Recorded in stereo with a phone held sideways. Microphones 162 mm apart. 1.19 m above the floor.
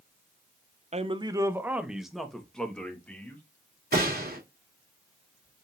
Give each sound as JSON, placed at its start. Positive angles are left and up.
{"t": 0.9, "sound": "a man speaking", "side_deg": -45, "distance_m": 0.6}
{"t": 3.9, "sound": "a gunshot", "side_deg": -75, "distance_m": 2.5}